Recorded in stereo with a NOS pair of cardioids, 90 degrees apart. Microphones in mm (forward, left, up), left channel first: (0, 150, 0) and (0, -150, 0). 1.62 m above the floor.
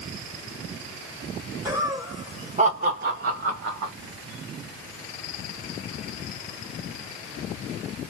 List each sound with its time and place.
1.6 s laughter: 5° right, 1.5 m; by 3.9 s 70° right, 0.9 m